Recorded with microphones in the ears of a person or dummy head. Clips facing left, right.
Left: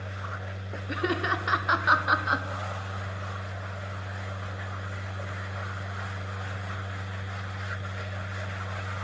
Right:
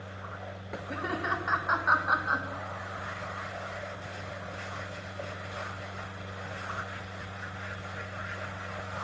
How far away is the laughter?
About 0.8 m.